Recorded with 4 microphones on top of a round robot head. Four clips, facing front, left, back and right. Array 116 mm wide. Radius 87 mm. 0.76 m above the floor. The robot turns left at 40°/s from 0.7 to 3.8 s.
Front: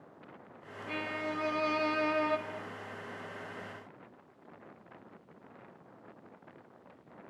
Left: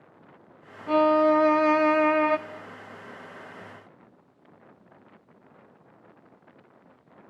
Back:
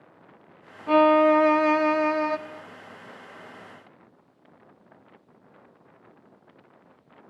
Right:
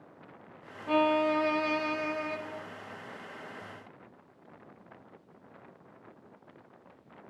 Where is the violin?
165° left, 1.1 m; by 2.4 s 100° left, 1.1 m.